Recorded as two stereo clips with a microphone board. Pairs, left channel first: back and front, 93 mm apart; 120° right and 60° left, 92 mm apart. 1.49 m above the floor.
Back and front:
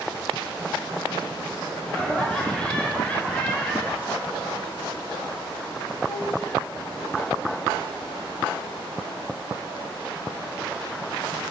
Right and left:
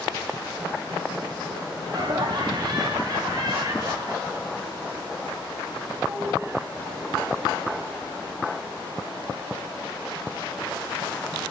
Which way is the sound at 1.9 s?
95° left.